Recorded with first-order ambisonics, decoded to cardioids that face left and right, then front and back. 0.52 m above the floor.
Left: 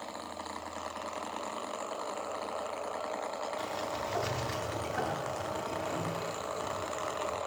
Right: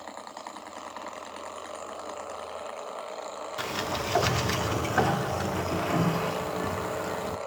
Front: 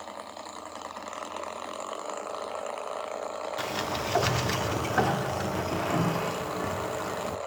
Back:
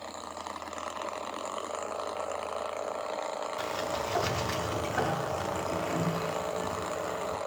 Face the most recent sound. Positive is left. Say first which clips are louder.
# right 5 dB, front 3 dB
turn(degrees=-60)